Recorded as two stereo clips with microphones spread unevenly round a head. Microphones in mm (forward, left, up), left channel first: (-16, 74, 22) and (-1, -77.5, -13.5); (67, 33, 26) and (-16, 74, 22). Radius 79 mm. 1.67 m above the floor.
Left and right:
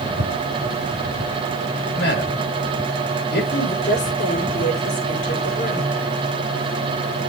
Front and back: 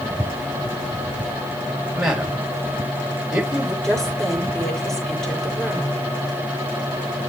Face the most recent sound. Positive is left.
turn(degrees=55)